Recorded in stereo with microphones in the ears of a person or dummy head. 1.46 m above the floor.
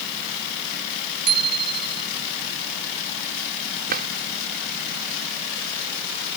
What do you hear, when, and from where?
1.3 s a bicycle bell: 50° right (ahead or behind)
3.9 s a drawer: 50° right (ahead or behind)